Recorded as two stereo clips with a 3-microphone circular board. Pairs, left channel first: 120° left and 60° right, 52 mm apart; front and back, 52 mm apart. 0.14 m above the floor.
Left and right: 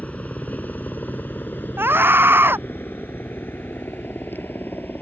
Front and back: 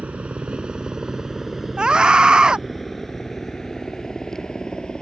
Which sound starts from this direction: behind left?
A helicopter, at 0.0 s.